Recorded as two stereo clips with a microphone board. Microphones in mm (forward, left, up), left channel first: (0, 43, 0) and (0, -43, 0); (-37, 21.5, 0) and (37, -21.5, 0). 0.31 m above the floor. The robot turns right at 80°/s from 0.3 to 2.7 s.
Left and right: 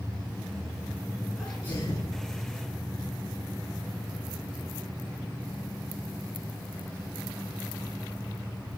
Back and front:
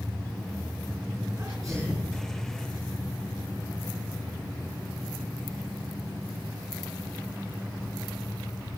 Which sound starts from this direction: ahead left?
A sneeze, at 1.4 s.